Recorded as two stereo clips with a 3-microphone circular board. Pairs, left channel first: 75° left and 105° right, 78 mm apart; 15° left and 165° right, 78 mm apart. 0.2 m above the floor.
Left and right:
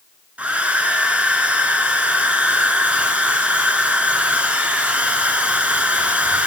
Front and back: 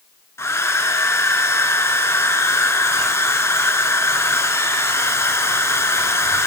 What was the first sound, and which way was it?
A hair dryer, 35° right.